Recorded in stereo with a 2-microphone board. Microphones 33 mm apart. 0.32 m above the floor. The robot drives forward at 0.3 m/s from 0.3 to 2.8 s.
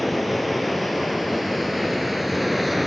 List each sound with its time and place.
0.0 s running water: centre (ahead or behind), 2.5 m; by 2.9 s 5° right (ahead or behind), 1.8 m